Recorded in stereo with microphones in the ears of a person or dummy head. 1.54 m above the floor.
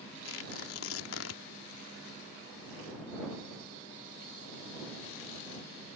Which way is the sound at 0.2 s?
90° left.